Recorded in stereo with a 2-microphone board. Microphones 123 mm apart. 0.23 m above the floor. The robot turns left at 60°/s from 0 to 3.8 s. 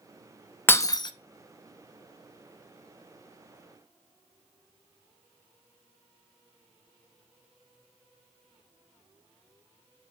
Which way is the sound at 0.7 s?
15° left (ahead or behind).